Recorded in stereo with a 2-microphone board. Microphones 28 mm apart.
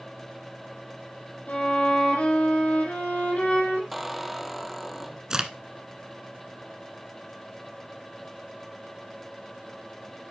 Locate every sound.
1.5 s a violin: 65° left (ahead or behind), 3 m
3.9 s a squeak: 5° right (ahead or behind), 0.6 m
5.3 s a crack: 25° right (ahead or behind), 1.1 m